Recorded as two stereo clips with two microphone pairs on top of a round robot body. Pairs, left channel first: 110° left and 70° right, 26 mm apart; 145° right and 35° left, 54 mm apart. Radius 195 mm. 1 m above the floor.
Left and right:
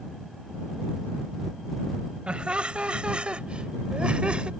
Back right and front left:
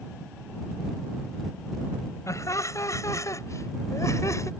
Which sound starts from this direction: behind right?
Laughter, at 2.3 s.